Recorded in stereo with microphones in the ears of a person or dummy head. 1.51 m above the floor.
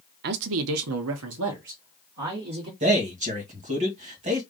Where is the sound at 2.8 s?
35° right (ahead or behind), 1.7 m.